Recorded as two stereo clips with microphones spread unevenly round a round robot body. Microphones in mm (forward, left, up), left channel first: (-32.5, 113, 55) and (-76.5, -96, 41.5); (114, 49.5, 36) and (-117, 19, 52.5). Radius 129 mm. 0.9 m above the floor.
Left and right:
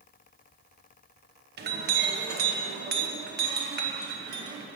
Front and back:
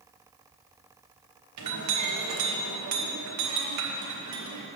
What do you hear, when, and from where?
1.6 s a clink: 145° right, 0.8 m